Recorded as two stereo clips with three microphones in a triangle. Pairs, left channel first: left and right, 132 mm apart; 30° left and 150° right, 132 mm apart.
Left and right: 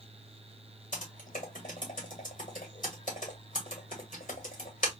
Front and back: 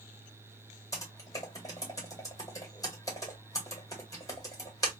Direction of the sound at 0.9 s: 95° left.